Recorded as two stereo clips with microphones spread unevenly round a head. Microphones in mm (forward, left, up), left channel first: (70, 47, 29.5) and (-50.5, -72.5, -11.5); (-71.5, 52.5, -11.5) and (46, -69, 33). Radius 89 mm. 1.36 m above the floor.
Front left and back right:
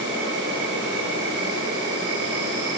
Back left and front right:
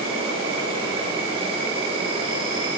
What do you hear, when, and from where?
0.0 s an insect: 110° right, 7.5 m